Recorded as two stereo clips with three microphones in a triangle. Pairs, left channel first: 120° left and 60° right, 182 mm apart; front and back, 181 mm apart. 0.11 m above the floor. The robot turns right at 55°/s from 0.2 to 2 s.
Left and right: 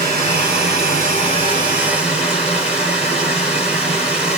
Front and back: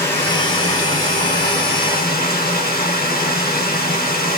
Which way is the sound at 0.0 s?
75° right.